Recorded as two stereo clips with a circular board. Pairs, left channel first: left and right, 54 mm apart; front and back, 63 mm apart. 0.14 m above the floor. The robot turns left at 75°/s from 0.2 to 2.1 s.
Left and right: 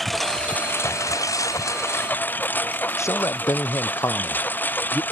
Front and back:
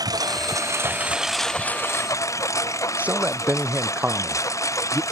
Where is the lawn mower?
175° left; by 5.1 s 35° left.